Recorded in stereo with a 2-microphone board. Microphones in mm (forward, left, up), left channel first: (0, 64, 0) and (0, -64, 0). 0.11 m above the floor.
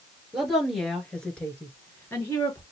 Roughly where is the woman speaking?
Centre.